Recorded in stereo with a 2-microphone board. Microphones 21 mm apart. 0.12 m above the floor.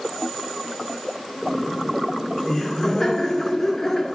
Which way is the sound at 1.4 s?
25° left (ahead or behind).